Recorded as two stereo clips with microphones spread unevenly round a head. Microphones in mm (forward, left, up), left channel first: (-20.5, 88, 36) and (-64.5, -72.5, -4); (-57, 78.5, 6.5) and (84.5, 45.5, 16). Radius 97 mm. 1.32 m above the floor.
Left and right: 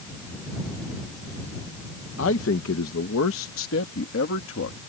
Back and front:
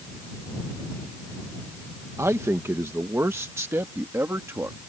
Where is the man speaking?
60° left.